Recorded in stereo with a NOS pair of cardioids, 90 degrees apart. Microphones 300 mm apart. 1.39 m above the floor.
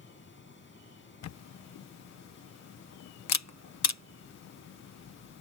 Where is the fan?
40° left.